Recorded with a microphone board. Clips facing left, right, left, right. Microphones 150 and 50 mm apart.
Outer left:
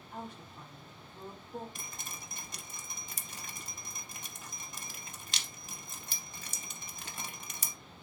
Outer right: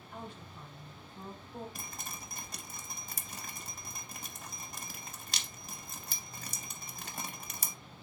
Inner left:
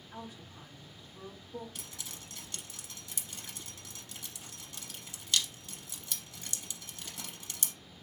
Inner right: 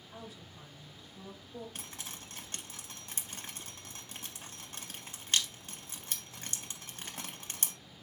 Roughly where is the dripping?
Right.